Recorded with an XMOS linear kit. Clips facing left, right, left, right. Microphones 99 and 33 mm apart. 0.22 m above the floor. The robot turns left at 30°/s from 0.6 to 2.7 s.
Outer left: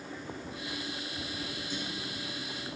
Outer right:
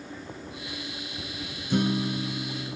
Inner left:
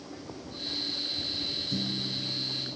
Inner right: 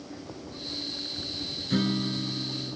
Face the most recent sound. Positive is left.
turn(degrees=-135)